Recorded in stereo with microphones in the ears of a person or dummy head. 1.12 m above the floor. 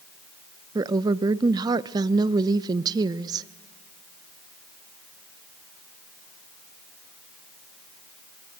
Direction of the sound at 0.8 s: 25° right (ahead or behind).